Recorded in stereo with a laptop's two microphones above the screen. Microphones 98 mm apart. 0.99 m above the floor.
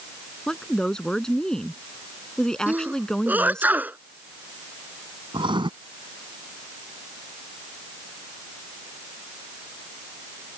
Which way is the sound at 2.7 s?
15° right (ahead or behind).